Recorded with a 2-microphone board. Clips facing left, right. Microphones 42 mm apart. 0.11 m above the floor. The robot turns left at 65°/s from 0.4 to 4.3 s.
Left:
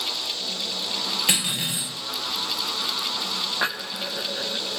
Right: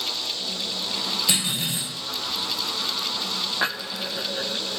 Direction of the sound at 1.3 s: 80° left.